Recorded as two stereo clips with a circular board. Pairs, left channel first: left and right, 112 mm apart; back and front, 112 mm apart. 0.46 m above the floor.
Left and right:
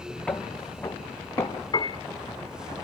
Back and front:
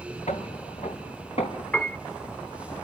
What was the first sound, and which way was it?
Footsteps, 170° left.